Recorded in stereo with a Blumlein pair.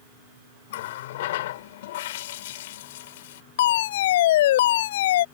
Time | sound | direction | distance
0.7 | a running tap | 55° left | ?
3.6 | a fire alarm | 55° left | ?